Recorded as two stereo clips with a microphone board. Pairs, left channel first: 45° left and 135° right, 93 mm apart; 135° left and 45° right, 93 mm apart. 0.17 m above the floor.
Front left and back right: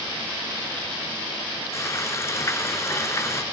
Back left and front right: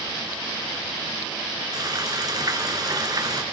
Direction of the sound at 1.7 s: 10° right.